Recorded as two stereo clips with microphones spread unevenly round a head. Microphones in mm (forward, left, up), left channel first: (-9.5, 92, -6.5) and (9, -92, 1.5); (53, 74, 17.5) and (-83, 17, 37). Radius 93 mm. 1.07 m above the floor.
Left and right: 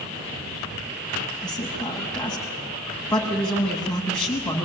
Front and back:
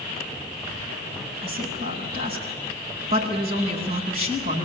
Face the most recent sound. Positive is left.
turn(degrees=180)